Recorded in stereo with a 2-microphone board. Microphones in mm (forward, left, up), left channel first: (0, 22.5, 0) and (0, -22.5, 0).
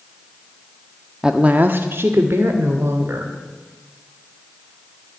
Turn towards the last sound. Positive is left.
turn(degrees=-70)  # may be behind; listen again after turning